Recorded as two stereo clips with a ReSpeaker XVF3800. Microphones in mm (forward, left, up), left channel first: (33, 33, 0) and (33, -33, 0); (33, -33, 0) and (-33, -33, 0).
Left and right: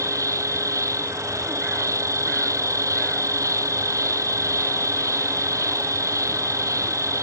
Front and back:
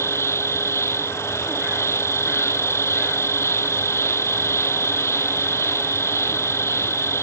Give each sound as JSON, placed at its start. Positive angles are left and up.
{"t": 0.0, "sound": "an insect", "azimuth_deg": -50}